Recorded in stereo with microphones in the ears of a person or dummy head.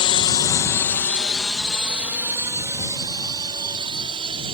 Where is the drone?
30° left (ahead or behind); by 4.6 s 30° right (ahead or behind).